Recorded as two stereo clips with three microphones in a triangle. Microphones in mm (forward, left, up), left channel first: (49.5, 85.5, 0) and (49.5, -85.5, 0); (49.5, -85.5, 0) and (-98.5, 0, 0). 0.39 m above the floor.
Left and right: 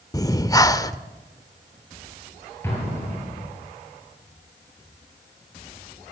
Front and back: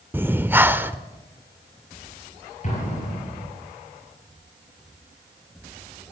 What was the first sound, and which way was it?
Breathing, 95° left.